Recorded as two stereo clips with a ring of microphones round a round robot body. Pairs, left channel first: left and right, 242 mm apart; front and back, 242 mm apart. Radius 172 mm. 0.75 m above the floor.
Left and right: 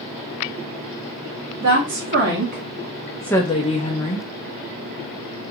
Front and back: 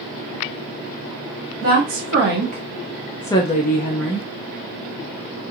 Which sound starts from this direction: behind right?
A woman speaking, at 1.6 s.